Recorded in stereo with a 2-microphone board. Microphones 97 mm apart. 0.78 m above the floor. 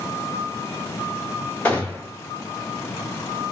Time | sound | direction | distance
1.6 | a gunshot | 15° left (ahead or behind) | 1.9 m